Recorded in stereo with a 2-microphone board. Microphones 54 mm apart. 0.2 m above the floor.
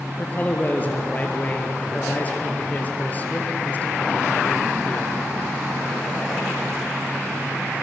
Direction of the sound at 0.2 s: 30° left (ahead or behind).